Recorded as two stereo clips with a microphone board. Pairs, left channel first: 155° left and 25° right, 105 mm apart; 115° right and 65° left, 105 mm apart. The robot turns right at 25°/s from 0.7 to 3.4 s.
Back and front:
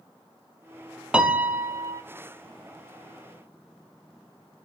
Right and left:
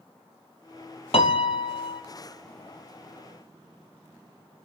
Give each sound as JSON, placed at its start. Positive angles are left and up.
{"t": 1.1, "sound": "a piano", "azimuth_deg": -100, "distance_m": 0.7}